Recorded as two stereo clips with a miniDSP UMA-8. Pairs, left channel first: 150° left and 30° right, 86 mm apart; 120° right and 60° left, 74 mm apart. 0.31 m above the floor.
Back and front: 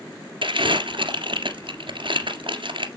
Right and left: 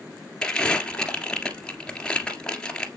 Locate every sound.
0.4 s crumpling: 40° right, 1.7 m